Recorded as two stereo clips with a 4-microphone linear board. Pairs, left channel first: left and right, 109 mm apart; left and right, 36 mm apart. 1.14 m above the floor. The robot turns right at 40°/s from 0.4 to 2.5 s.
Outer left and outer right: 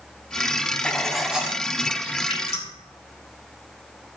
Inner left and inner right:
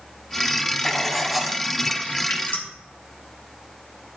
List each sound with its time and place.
0.8 s writing: 170° left, 1.1 m; by 1.6 s 160° right, 1.1 m
2.3 s dripping: 60° left (ahead or behind), 2.5 m; by 2.7 s 70° left (ahead or behind), 2.5 m